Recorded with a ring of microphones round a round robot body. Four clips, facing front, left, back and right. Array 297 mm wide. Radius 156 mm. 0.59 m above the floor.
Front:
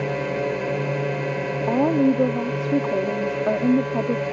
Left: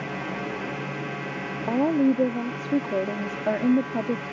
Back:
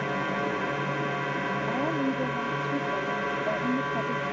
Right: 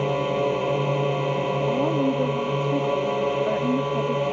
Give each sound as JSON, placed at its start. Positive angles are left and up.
{"t": 0.0, "sound": "a drone", "azimuth_deg": -55}
{"t": 1.7, "sound": "a woman speaking", "azimuth_deg": 25}